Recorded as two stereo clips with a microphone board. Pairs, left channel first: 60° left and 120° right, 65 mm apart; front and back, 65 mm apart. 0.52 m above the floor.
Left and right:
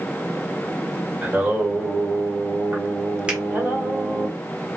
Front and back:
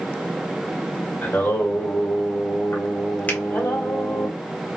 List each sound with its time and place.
1.2 s singing: 55° right, 1.8 m
3.3 s a finger snap: 55° right, 1.5 m